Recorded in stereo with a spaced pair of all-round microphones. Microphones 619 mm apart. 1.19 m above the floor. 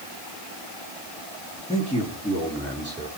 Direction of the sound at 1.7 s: 10° left (ahead or behind).